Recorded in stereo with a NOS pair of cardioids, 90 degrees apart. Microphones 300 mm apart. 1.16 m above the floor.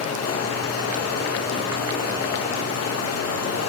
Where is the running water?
55° left, 1.2 m.